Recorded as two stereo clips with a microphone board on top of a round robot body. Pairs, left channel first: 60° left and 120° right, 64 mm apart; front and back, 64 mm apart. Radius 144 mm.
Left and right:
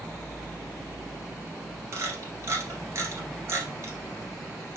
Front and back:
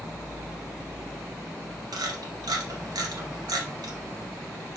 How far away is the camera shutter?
About 2.0 m.